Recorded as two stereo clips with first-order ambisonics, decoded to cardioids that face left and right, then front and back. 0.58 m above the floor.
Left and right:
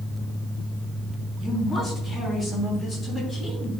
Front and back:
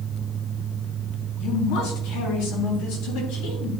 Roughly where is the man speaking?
Ahead.